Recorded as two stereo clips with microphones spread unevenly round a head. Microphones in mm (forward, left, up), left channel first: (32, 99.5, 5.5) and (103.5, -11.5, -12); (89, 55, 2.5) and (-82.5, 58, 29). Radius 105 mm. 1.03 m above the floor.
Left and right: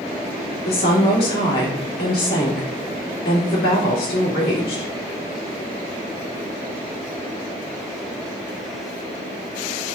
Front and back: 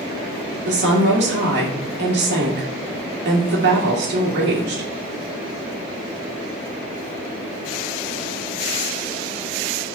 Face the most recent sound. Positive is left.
turn(degrees=160)